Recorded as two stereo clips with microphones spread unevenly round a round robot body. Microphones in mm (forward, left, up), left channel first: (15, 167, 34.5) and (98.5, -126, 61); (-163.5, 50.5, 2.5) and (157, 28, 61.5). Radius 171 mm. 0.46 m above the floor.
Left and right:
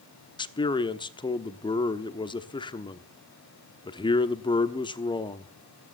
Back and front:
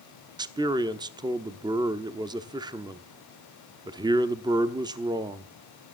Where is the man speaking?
80° left, 1.1 m.